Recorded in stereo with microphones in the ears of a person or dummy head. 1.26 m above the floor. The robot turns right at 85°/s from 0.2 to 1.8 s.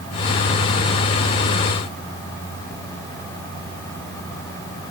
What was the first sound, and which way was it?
Only background noise.